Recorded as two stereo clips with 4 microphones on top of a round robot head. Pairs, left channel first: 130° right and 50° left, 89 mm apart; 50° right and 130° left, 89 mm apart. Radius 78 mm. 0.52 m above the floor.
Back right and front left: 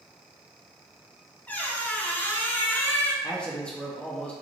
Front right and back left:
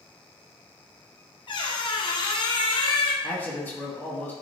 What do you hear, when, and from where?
1.5 s a squeak: 60° right, 0.6 m
3.2 s a man speaking: 75° right, 0.8 m